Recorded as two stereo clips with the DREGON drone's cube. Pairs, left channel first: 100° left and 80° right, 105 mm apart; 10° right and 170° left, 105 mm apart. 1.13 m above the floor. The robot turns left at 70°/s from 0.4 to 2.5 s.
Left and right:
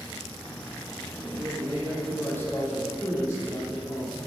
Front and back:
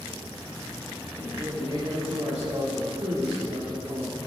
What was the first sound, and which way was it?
A man speaking, 120° right.